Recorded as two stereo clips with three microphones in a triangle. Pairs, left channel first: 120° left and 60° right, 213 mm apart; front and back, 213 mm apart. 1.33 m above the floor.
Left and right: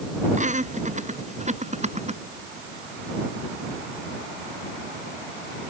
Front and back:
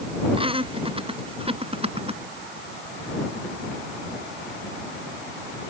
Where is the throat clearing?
I don't hear throat clearing.